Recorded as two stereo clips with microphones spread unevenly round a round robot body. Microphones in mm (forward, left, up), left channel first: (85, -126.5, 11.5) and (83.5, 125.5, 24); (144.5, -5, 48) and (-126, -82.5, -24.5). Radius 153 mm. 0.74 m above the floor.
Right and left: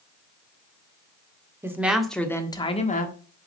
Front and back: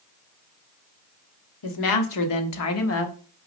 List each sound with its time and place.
1.6 s a woman speaking: 10° left, 1.9 m; by 3.1 s 40° right, 1.5 m